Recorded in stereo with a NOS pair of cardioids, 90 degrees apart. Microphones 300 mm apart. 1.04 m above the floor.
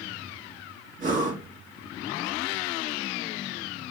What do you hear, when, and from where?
1.0 s breathing: 30° right, 1.8 m